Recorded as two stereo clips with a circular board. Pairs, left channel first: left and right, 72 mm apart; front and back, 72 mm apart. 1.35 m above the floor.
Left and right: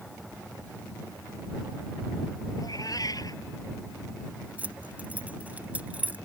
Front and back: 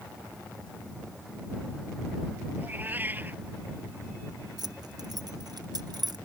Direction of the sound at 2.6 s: 115° left.